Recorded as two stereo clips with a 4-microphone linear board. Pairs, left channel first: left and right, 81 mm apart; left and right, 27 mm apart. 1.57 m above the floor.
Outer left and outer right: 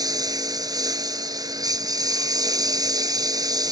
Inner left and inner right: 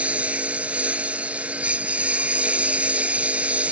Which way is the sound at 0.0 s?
50° right (ahead or behind).